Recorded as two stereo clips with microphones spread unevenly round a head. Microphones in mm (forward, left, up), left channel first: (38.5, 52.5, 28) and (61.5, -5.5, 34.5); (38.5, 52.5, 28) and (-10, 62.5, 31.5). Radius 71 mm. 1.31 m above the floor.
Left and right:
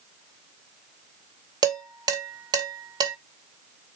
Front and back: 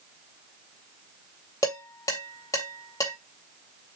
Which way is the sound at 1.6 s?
55° right.